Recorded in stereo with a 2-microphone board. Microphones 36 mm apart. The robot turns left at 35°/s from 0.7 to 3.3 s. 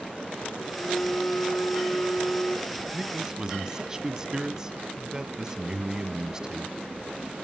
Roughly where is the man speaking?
Centre.